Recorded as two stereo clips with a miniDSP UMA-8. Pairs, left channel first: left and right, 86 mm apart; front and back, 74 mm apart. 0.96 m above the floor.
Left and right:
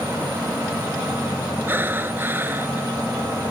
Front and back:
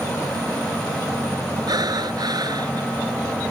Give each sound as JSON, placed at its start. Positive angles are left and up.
{"t": 1.7, "sound": "breathing", "azimuth_deg": -155}